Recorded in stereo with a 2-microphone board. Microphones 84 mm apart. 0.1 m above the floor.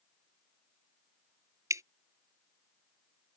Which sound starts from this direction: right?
Dripping, at 1.7 s.